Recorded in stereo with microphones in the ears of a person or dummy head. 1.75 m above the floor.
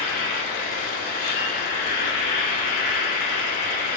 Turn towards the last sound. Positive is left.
turn(degrees=40)  # may be behind; listen again after turning